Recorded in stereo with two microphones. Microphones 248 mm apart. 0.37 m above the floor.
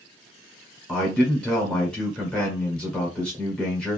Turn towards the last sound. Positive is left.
turn(degrees=5)  # may be behind; listen again after turning